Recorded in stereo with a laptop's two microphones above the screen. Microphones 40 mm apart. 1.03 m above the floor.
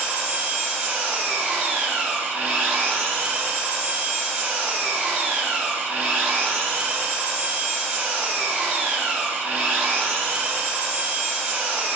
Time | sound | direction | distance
0.0 | an engine running | 45° right (ahead or behind) | 1.0 m